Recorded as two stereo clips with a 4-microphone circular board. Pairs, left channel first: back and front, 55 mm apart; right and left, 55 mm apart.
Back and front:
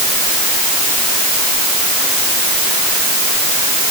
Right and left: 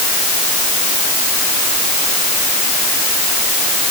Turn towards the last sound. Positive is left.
No sound to turn to.